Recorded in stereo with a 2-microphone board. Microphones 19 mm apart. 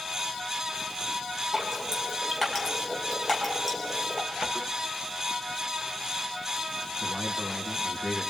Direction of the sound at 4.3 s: 60° right (ahead or behind).